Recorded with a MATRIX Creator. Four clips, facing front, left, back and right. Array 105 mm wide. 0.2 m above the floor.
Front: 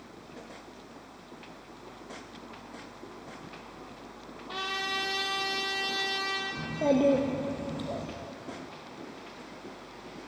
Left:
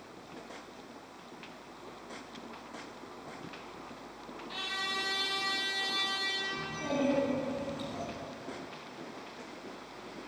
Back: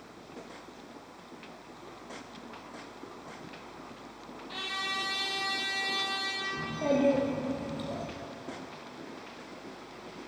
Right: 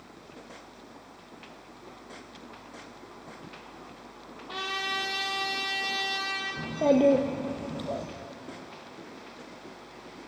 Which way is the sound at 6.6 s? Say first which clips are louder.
Right 11 dB, front 2 dB; 75° right.